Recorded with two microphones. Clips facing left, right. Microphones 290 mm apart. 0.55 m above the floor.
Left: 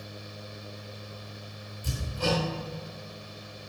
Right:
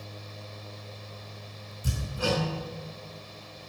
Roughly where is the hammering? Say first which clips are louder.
Even; centre.